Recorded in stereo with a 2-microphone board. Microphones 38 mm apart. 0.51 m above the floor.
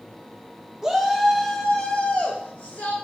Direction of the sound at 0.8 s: 10° right (ahead or behind).